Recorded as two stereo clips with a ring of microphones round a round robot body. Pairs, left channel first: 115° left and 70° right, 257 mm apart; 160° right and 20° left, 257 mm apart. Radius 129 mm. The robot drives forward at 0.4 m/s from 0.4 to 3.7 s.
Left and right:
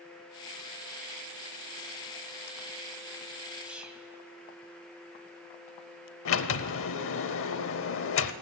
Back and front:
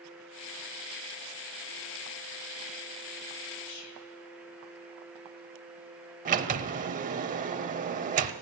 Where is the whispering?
155° right, 2 m.